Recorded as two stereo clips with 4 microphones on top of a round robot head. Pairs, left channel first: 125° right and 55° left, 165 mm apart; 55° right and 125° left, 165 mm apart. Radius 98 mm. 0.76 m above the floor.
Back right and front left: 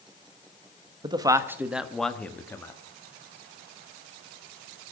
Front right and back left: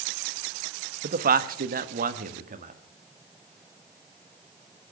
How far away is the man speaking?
About 1.1 m.